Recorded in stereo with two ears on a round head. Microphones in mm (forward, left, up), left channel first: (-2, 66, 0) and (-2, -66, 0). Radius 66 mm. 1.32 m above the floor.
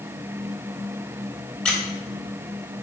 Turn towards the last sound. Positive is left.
turn(degrees=10)  # may be behind; listen again after turning